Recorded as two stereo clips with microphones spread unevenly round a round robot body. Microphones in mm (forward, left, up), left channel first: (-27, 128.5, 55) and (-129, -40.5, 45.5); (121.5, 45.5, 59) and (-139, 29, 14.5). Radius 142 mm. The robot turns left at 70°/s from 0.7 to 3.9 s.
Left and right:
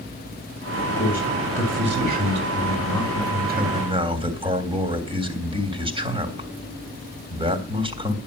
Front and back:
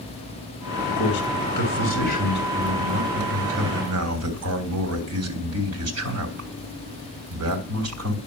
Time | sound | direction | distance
1.0 | a man speaking | 25° left | 3.5 m